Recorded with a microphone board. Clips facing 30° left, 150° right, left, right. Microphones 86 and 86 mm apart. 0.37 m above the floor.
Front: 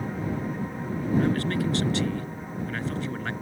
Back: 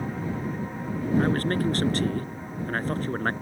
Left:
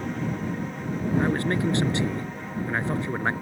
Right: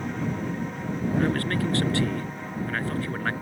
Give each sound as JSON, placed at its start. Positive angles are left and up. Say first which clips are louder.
{"t": 1.2, "sound": "a man speaking", "louder": "back 2 dB, left 2 dB", "azimuth_deg": 160}